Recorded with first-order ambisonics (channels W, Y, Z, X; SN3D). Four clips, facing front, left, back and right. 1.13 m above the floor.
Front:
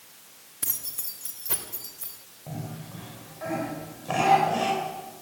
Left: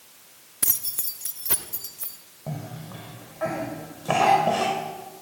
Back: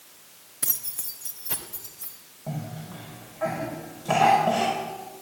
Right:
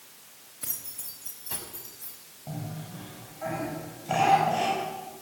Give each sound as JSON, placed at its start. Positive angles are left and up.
{"t": 0.6, "sound": "keys jangling", "azimuth_deg": 95, "distance_m": 1.3}
{"t": 2.5, "sound": "a cough", "azimuth_deg": 105, "distance_m": 5.5}